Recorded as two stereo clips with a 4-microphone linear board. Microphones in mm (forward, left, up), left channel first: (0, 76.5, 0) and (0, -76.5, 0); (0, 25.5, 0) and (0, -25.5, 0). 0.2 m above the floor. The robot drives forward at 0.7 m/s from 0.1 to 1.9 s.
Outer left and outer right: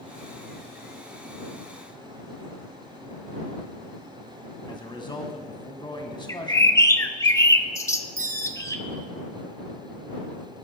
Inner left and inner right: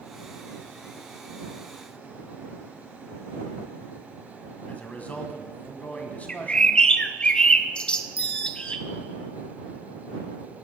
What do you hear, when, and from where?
4.7 s a man speaking: 30° left (ahead or behind), 1.6 m
6.3 s a bird: 20° left (ahead or behind), 0.8 m
8.2 s a bell: 75° left (ahead or behind), 0.8 m